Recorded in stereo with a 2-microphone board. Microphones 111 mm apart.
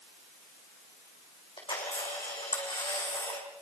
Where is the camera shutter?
50° left (ahead or behind), 4 m.